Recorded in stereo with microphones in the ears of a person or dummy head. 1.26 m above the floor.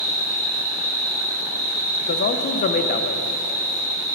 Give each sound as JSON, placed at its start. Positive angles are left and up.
{"t": 0.0, "sound": "an insect", "side_deg": -15, "distance_m": 1.8}
{"t": 2.0, "sound": "a man speaking", "side_deg": 40, "distance_m": 0.5}